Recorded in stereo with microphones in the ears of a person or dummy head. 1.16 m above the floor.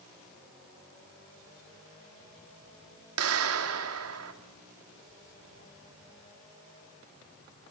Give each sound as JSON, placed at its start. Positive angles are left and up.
{"t": 3.2, "sound": "a clap", "side_deg": -85, "distance_m": 2.5}